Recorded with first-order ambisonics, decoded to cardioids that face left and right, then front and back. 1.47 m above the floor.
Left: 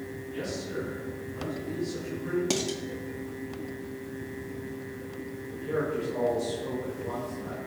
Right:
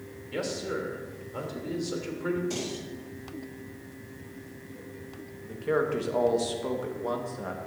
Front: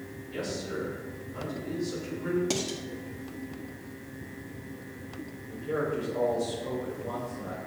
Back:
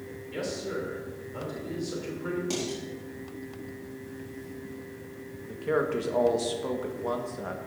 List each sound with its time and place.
0.3 s a man speaking: 105° right, 3 m
2.5 s dishes clattering: 70° left, 1.5 m
5.4 s a man speaking: 140° right, 1.6 m